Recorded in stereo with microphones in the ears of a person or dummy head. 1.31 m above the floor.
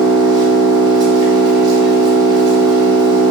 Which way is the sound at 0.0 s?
25° right (ahead or behind).